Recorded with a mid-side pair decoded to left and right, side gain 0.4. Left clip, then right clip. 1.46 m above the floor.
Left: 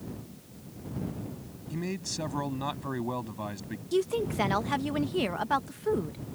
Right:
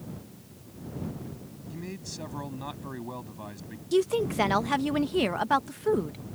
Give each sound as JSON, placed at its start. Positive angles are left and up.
{"t": 1.7, "sound": "a man speaking", "azimuth_deg": 40}
{"t": 3.9, "sound": "a woman speaking", "azimuth_deg": -30}